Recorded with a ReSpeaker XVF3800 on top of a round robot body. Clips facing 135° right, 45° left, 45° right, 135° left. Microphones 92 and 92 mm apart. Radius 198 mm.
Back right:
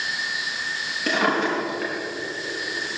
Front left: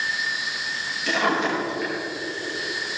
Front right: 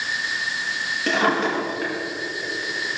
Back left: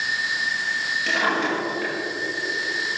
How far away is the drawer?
About 5 m.